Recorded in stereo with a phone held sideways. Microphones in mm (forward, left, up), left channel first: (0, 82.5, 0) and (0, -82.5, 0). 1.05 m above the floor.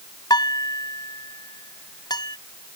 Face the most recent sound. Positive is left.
turn(degrees=25)  # may be behind; listen again after turning